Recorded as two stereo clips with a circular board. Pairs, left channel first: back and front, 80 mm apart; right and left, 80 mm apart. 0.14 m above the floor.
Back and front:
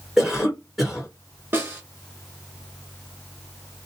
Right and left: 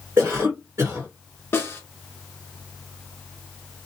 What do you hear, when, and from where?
0.2 s a cough: 85° left, 1.8 m
1.5 s a snare drum: 45° right, 1.3 m